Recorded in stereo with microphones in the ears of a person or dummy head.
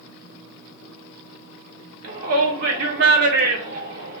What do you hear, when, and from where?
2.0 s a shout: 55° right (ahead or behind), 1.1 m